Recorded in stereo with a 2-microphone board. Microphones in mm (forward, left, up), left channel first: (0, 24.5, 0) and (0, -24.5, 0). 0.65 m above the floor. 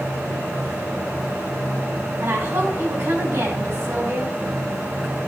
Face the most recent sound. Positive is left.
turn(degrees=-70)  # may be behind; listen again after turning